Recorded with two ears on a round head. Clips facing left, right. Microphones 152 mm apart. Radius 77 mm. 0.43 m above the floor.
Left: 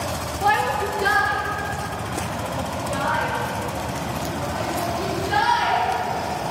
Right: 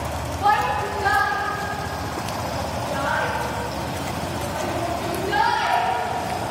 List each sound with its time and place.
0.4 s a shout: 25° left (ahead or behind), 1.3 m; by 5.8 s 80° left, 8 m